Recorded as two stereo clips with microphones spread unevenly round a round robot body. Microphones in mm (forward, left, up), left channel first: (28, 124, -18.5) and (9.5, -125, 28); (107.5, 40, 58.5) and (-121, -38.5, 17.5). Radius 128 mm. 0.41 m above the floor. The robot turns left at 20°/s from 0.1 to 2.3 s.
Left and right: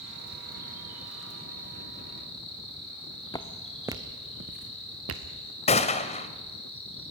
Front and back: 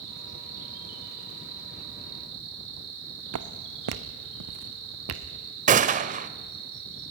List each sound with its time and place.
0.0 s an insect: 160° right, 6 m; by 7.1 s 155° left, 6 m
3.3 s footsteps: 165° left, 1.2 m; by 5.2 s 125° right, 1.9 m
5.7 s a gunshot: 145° left, 0.8 m